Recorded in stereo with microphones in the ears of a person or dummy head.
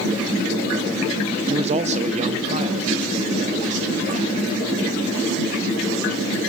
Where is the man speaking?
35° right (ahead or behind), 1.0 m; by 4.5 s 45° right (ahead or behind), 3 m.